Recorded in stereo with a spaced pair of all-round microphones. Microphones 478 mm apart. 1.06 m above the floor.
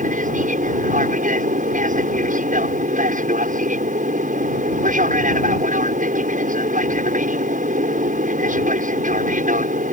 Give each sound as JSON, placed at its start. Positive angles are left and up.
{"t": 0.0, "sound": "an aircraft", "side_deg": -15}